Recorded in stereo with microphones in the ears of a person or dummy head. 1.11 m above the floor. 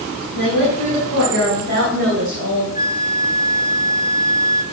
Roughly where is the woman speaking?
Right.